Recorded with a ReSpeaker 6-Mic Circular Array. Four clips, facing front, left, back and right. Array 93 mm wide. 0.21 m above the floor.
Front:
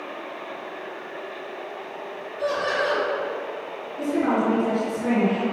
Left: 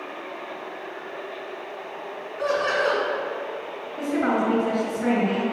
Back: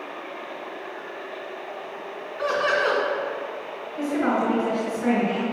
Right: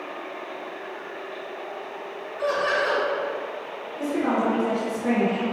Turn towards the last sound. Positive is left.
turn(degrees=135)